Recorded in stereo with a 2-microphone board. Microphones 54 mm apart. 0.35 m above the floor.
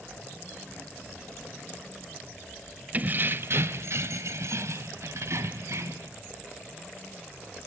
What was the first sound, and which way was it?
Keys jangling, 35° right (ahead or behind).